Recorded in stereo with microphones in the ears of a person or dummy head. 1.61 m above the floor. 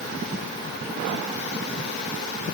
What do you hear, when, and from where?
Only background noise.